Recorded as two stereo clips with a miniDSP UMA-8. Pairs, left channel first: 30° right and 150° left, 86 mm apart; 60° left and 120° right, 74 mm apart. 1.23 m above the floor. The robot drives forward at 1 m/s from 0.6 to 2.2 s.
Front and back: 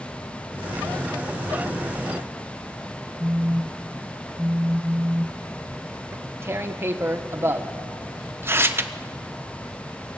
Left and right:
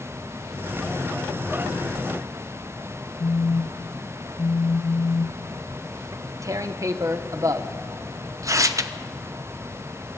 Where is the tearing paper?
155° right, 0.9 m.